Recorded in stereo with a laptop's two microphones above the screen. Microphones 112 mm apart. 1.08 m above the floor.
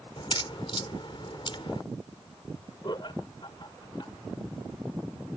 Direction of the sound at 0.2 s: 50° left (ahead or behind).